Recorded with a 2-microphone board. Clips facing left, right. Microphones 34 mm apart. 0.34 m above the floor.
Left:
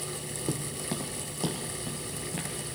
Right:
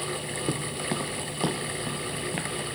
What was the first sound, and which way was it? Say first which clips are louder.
Footsteps: right 3 dB; 15° right (ahead or behind).